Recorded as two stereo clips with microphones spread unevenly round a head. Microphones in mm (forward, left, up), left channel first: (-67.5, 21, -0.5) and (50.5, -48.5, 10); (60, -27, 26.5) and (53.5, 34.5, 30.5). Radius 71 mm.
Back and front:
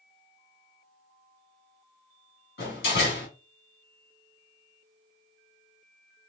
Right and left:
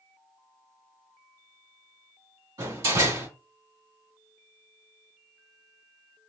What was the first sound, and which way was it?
A door slam, 130° left.